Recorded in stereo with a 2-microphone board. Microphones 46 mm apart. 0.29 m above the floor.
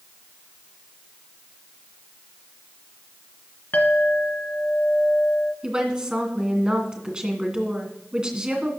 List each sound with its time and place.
3.7 s a clink: 45° left (ahead or behind), 1.9 m
5.6 s a woman speaking: 20° right (ahead or behind), 2 m